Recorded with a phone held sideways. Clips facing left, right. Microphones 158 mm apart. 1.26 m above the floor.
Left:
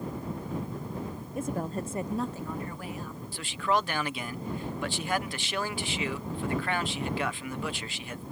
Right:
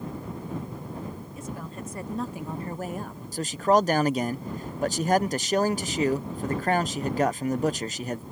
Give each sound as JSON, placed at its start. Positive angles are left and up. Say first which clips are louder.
{"t": 1.4, "sound": "a woman speaking", "louder": "left 5 dB", "side_deg": 55}
{"t": 3.3, "sound": "a man speaking", "louder": "right 7 dB", "side_deg": -40}